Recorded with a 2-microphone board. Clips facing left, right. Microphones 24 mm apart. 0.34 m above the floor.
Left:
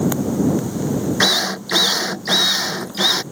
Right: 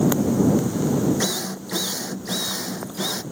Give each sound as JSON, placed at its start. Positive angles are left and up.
{"t": 1.2, "sound": "a drill", "side_deg": 50}